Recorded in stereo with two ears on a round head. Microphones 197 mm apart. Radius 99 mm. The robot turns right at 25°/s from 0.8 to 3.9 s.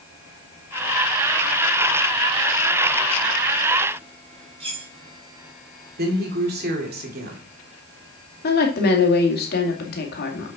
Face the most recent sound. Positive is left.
turn(degrees=45)  # may be behind; listen again after turning